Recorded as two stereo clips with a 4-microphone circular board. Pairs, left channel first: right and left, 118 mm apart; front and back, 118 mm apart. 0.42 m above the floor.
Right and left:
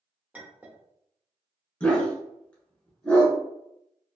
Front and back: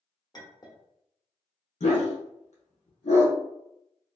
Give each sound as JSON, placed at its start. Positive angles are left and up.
{"t": 0.3, "sound": "a clink", "azimuth_deg": 20, "distance_m": 0.7}
{"t": 1.8, "sound": "a dog barking", "azimuth_deg": -10, "distance_m": 1.1}